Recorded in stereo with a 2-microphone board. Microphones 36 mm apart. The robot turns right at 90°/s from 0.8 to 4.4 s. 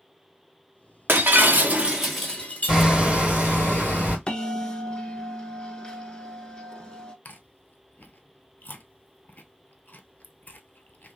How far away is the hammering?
About 2.5 m.